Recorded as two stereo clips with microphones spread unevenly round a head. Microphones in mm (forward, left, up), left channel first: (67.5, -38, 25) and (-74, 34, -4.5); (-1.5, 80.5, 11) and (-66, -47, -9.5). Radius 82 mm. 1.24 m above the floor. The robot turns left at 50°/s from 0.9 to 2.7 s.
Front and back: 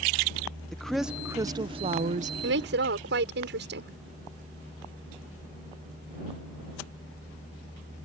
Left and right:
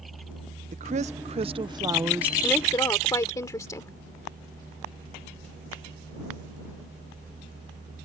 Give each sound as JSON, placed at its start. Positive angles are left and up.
{"t": 0.7, "sound": "a woman speaking", "azimuth_deg": -120}
{"t": 2.4, "sound": "a woman speaking", "azimuth_deg": 145}